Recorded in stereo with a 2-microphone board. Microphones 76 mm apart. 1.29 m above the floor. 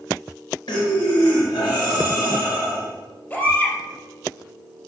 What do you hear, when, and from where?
0.7 s breathing: 80° left, 5.5 m
3.3 s a baby crying: 30° left (ahead or behind), 4 m